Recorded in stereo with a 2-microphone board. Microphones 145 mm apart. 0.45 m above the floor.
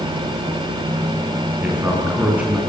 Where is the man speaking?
10° right (ahead or behind), 5 m.